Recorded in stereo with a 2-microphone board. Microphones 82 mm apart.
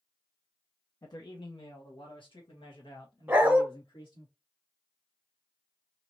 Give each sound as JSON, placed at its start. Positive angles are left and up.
{"t": 1.0, "sound": "a man speaking", "side_deg": 50, "distance_m": 0.6}
{"t": 3.3, "sound": "a dog barking", "side_deg": -20, "distance_m": 1.0}